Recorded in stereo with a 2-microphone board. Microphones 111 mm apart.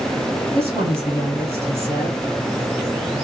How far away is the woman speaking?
About 0.9 m.